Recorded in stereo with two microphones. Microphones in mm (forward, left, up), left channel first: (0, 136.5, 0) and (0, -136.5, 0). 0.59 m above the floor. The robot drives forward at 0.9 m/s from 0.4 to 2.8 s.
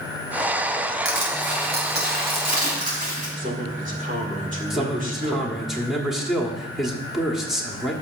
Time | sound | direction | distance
1.1 | crushing | 45° right (ahead or behind) | 2.5 m
3.4 | a man speaking | 30° right (ahead or behind) | 1.9 m
4.7 | a man speaking | centre (ahead or behind) | 1.2 m